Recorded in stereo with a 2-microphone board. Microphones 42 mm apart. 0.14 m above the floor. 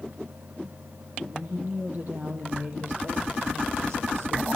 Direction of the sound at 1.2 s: 45° right (ahead or behind).